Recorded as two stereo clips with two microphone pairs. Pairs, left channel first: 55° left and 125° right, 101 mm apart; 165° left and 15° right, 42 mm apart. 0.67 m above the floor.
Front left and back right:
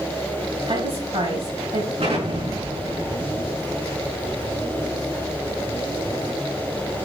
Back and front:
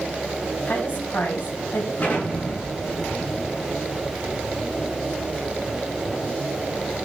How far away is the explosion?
About 6.5 m.